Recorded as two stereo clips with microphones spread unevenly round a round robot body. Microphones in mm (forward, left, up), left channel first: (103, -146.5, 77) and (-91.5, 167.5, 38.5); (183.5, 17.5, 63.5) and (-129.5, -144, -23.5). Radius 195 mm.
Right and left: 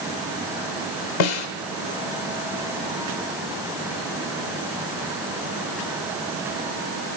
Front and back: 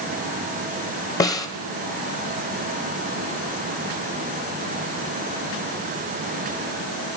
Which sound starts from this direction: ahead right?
A snare drum, at 1.2 s.